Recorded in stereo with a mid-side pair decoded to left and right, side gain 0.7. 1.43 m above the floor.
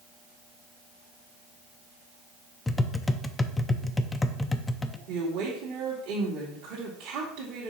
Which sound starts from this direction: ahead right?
A woman speaking, at 5.1 s.